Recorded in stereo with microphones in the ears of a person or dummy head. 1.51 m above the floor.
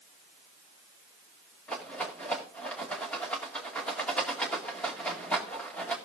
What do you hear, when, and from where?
1.7 s a rattle: 10° left (ahead or behind), 1.9 m